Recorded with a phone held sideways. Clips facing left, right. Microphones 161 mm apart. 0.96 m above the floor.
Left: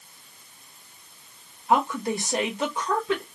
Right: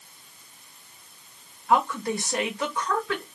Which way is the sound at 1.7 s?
20° left (ahead or behind).